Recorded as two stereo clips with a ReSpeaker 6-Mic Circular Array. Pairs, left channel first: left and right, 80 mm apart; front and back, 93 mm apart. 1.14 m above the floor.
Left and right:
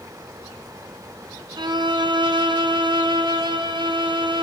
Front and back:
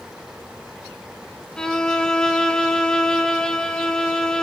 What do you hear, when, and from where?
1.6 s a violin: 80° right, 0.7 m